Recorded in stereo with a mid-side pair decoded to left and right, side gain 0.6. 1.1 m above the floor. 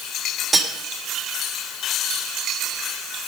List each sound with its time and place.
0.5 s cutlery clinking: 20° right, 1.9 m